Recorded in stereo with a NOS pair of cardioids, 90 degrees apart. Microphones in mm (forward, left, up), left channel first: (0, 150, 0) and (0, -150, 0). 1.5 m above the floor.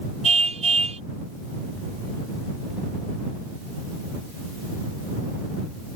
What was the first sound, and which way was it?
A car horn, 25° right.